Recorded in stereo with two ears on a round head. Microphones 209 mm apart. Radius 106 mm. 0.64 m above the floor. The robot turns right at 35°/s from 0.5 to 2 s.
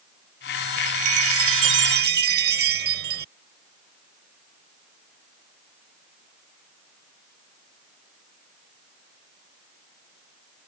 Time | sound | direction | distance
0.8 | a chime | 85° right | ?